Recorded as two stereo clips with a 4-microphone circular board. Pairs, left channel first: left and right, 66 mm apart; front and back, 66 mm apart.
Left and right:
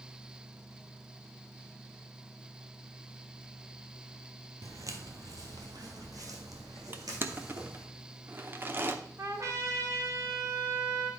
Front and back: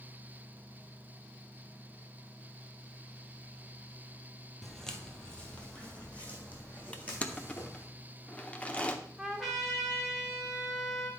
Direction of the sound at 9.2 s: 90° right.